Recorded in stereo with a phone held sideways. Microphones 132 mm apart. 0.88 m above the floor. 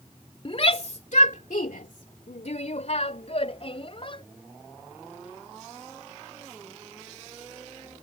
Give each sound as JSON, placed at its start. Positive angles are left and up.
{"t": 0.5, "sound": "a shout", "side_deg": 45}